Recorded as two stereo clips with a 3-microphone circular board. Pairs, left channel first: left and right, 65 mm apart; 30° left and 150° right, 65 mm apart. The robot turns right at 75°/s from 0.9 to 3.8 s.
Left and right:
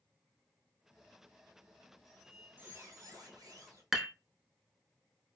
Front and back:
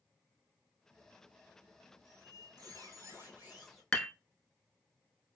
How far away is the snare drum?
No snare drum in this recording.